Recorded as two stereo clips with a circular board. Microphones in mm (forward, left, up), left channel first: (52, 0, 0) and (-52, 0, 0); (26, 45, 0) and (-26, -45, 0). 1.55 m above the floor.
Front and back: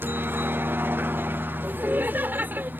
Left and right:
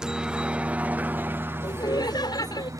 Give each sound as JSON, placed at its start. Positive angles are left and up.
{"t": 0.0, "sound": "a helicopter", "azimuth_deg": 170}
{"t": 1.6, "sound": "laughter", "azimuth_deg": 110}